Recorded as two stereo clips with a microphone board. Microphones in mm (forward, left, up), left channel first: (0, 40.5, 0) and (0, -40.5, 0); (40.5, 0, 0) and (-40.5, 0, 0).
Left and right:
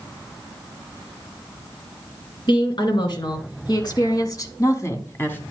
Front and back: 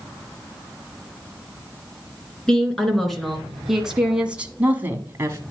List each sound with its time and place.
2.5 s a woman speaking: 80° left, 2.5 m; by 5.4 s 145° left, 1.4 m